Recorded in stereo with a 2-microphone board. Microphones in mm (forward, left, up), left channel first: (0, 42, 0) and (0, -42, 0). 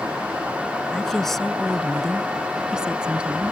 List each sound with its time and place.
0.9 s a woman speaking: 5° left (ahead or behind); by 3.5 s 15° right (ahead or behind)